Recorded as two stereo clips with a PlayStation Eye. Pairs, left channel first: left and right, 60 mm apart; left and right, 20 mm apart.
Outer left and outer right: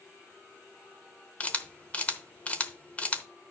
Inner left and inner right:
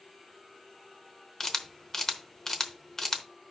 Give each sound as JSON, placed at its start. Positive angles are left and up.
{"t": 1.4, "sound": "a camera shutter", "side_deg": 25, "distance_m": 0.9}